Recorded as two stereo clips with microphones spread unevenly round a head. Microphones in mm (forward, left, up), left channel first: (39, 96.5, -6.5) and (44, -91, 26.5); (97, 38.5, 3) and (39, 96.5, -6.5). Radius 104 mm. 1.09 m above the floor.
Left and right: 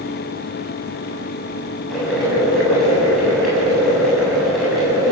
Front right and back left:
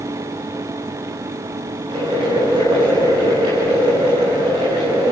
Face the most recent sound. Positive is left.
turn(degrees=180)